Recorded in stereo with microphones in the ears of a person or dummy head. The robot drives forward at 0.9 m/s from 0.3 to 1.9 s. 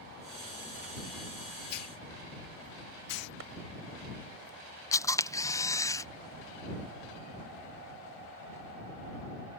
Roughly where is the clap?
Right.